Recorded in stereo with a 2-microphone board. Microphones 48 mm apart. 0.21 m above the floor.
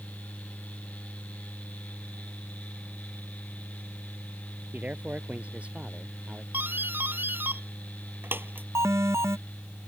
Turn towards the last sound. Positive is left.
turn(degrees=-70)  # may be behind; listen again after turning